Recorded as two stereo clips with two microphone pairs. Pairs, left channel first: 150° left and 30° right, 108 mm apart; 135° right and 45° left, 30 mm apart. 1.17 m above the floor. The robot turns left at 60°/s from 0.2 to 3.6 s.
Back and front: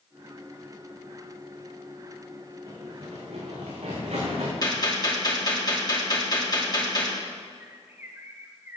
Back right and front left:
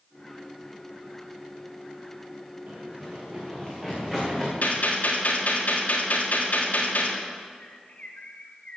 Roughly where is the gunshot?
Behind.